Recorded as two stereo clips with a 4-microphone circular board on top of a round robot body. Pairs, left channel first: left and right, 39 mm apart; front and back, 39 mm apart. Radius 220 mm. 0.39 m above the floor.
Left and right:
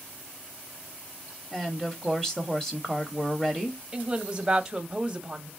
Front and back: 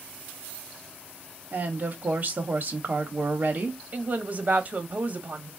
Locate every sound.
1.5 s a woman speaking: 160° left, 1.3 m
3.9 s a woman speaking: 160° right, 1.3 m